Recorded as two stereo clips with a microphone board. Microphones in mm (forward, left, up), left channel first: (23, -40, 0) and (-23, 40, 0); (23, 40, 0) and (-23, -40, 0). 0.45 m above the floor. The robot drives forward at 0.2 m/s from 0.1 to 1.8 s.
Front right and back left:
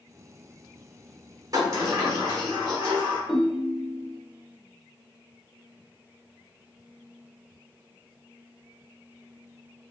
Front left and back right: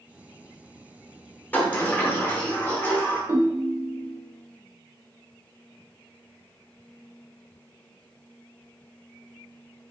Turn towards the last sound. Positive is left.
turn(degrees=-150)